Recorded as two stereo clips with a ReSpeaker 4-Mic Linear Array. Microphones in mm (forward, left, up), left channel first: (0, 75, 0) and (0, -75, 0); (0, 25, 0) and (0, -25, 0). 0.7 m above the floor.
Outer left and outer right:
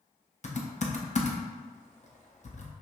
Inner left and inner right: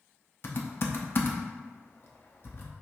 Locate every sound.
0.4 s typing on a keyboard: 50° left (ahead or behind), 0.6 m